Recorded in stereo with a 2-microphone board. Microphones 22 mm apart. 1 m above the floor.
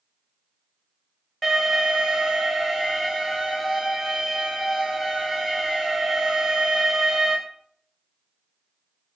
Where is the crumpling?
No crumpling in this recording.